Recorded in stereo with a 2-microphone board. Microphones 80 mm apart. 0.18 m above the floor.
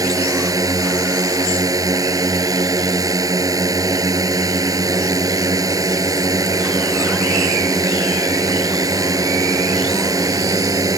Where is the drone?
45° right (ahead or behind).